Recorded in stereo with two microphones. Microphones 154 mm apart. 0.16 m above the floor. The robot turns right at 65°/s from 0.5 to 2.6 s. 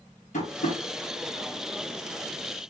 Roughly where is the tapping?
Left.